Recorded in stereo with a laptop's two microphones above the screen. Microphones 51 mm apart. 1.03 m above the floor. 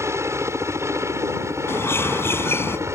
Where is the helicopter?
70° right (ahead or behind).